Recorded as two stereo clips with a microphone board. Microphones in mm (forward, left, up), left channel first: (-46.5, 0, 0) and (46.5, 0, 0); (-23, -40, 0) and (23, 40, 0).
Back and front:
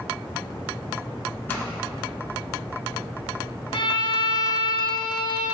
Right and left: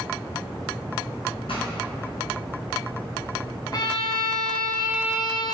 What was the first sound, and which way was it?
A pop, 110° right.